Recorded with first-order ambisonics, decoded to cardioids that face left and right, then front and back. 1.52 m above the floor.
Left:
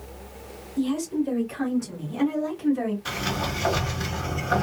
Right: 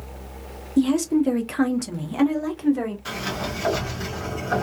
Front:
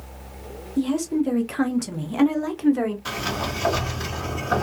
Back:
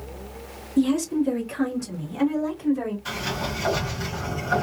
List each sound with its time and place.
0.8 s a woman speaking: 100° right, 0.7 m; by 3.0 s 20° right, 1.2 m
3.0 s a sliding door: 10° right, 1.4 m